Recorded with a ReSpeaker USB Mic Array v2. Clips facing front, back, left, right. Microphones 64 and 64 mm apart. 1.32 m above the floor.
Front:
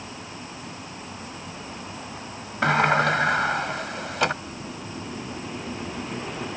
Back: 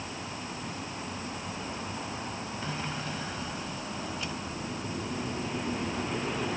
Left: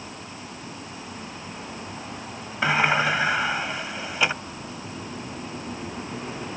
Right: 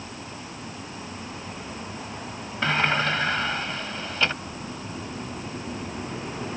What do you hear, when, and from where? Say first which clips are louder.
2.6 s a sliding door: front 19 dB, left 2 dB; 15° left